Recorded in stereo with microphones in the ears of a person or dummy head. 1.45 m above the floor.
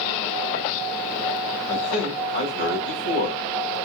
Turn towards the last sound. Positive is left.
turn(degrees=65)  # may be behind; listen again after turning